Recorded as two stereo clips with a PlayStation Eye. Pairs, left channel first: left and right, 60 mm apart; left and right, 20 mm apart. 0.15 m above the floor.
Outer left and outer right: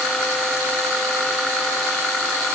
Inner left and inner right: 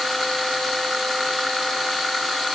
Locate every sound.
Only background noise.